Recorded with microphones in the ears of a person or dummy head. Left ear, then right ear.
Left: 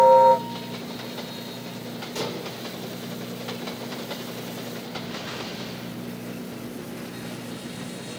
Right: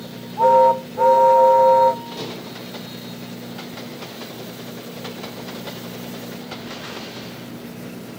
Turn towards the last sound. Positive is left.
turn(degrees=60)  # may be behind; listen again after turning